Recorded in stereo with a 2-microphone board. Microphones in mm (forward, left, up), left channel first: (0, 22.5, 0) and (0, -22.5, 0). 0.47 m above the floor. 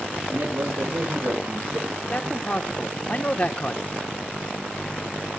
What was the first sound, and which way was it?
A man speaking, 85° right.